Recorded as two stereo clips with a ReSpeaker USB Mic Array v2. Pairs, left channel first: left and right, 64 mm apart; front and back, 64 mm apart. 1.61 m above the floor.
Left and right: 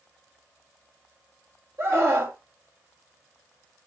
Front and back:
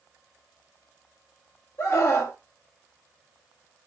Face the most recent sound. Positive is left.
turn(degrees=-40)